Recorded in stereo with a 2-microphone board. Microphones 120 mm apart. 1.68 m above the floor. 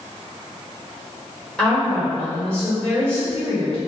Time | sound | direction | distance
1.6 | a woman speaking | centre (ahead or behind) | 1.1 m